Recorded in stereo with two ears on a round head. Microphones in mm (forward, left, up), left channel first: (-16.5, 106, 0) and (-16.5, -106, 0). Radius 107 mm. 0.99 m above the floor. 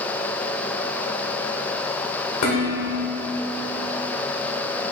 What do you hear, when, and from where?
2.4 s dishes clattering: 70° left (ahead or behind), 2 m